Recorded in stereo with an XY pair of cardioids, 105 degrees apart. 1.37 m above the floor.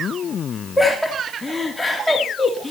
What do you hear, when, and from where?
0.8 s laughter: 10° left, 3 m